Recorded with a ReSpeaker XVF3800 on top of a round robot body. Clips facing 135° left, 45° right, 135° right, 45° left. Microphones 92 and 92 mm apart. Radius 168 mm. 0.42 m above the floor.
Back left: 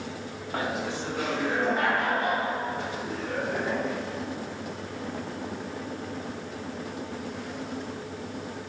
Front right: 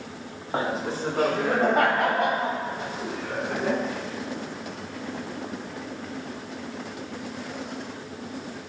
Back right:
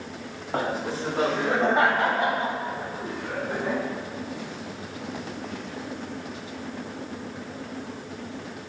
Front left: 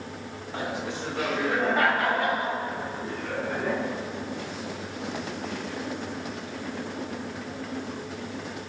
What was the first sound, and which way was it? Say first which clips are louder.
Laughter: front right 3 dB, back right 5 dB; 100° right.